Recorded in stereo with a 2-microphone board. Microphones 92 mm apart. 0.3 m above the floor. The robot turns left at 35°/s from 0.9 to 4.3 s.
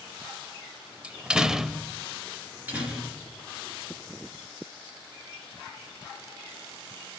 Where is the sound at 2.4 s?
155° right, 3 m; by 3.4 s 170° left, 3 m.